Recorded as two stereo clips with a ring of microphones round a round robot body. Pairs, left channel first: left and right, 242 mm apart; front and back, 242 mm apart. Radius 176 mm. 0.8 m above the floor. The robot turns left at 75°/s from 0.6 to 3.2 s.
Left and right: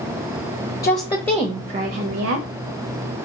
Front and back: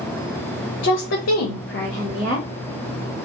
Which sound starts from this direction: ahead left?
A woman speaking, at 0.8 s.